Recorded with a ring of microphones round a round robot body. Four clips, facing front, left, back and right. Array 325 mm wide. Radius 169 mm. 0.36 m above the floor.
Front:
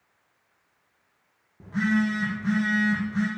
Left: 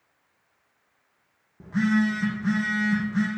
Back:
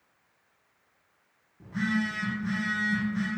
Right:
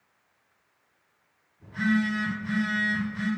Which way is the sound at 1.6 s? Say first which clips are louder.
Left 3 dB, front 5 dB; 65° left.